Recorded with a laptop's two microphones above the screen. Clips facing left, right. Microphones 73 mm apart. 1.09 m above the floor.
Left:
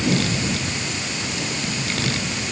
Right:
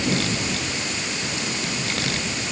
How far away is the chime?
No chime in this recording.